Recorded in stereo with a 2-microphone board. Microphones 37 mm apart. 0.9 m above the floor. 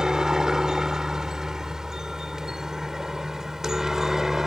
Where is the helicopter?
20° right (ahead or behind); by 4.5 s 15° right (ahead or behind).